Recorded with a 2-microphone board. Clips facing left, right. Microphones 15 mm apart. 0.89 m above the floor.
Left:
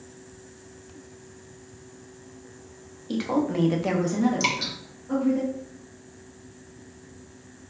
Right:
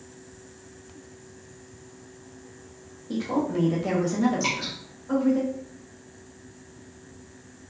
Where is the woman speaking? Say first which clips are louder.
Left 1 dB; 75° left (ahead or behind), 1.1 m; by 5.4 s 50° right (ahead or behind), 1.8 m.